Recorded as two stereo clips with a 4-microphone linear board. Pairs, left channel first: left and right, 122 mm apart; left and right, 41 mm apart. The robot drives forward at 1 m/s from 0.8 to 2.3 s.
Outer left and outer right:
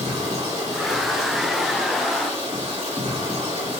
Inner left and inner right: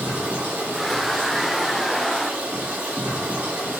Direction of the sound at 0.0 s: 75° right (ahead or behind).